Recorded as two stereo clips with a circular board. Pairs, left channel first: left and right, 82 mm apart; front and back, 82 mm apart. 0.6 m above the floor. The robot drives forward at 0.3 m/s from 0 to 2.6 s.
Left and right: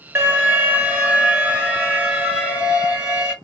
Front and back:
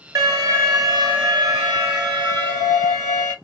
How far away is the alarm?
About 0.9 m.